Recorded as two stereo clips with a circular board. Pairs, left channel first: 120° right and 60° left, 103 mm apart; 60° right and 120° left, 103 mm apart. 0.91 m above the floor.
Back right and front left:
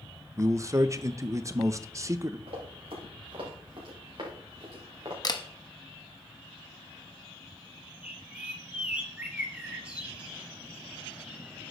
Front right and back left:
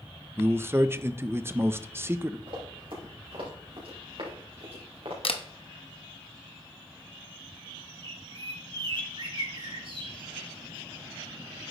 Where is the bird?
135° left, 1.5 m.